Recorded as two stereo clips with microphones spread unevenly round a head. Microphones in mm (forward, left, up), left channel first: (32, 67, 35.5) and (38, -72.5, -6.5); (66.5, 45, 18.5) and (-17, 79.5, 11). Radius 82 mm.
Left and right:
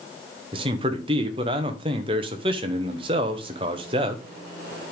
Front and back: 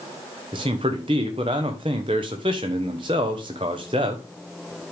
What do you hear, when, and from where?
0.5 s a man speaking: 145° right, 0.9 m